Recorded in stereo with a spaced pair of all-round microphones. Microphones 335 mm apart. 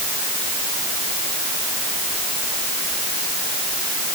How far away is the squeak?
I don't hear a squeak.